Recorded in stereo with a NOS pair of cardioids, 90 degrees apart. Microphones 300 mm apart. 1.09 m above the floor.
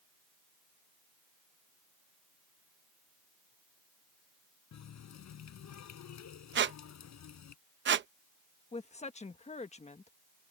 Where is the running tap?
60° left.